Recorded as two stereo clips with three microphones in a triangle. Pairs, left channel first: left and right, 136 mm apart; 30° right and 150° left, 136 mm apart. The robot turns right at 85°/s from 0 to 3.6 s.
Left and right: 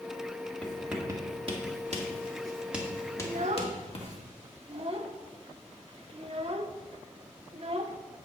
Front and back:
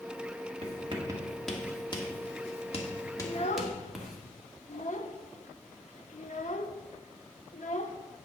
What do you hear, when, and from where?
0.6 s writing: 170° left, 1.7 m; by 4.2 s 60° left, 1.7 m
3.2 s a child speaking: 80° right, 0.9 m; by 8.0 s 50° right, 0.9 m